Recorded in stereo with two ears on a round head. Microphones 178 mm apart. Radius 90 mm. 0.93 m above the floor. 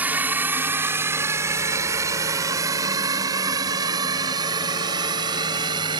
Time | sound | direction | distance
0.0 | a drone | 10° right (ahead or behind) | ?